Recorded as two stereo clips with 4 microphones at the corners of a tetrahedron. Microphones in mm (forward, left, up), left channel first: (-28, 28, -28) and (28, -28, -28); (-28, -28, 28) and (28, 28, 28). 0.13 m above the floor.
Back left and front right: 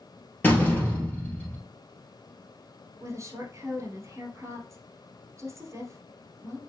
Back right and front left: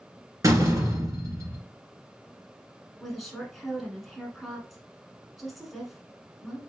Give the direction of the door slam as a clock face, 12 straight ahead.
10 o'clock.